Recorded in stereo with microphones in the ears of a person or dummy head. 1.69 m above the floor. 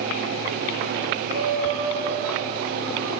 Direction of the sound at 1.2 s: 40° right (ahead or behind).